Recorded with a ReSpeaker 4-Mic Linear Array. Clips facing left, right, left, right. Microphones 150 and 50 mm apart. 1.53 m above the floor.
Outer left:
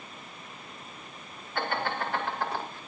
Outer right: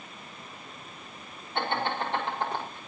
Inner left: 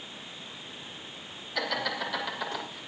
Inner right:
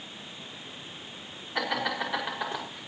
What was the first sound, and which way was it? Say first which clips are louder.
Laughter: outer right 1 dB, inner right 2 dB; 25° right (ahead or behind).